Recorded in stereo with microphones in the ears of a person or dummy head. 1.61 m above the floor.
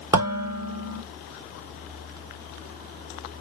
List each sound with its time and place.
0.1 s dishes clattering: 15° right (ahead or behind), 1.5 m